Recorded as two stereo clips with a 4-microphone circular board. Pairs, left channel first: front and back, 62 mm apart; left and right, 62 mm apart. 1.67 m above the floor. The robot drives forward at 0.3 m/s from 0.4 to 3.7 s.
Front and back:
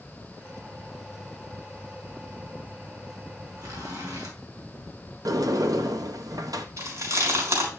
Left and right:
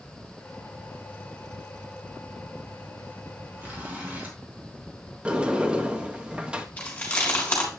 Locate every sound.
3.6 s a zipper: 155° right, 2.5 m
5.2 s a sliding door: 165° right, 0.8 m
6.8 s chewing: 155° left, 3.5 m